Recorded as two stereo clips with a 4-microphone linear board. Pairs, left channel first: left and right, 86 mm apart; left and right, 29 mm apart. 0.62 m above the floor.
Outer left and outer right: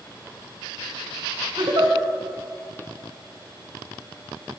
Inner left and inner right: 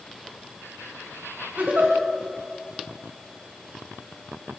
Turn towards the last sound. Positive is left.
turn(degrees=-60)  # may be behind; listen again after turning